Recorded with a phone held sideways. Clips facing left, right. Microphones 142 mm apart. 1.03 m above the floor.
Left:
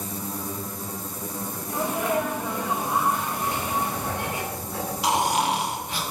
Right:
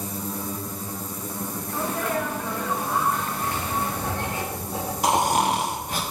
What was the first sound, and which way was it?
A sneeze, 15° left (ahead or behind).